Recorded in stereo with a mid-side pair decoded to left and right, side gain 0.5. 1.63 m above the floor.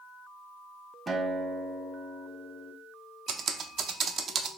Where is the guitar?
20° right, 0.8 m.